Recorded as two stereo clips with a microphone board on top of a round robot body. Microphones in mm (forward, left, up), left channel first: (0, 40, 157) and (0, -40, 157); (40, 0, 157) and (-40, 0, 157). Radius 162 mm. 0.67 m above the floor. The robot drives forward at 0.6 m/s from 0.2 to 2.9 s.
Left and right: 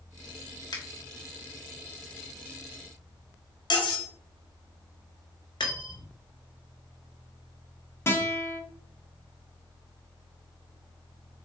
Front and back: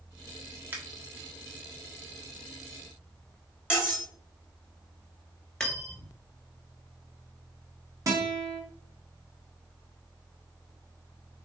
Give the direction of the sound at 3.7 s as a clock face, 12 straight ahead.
9 o'clock.